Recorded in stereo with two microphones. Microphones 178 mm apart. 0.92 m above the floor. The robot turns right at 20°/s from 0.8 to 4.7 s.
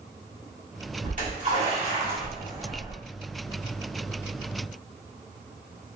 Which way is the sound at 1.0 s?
50° right (ahead or behind).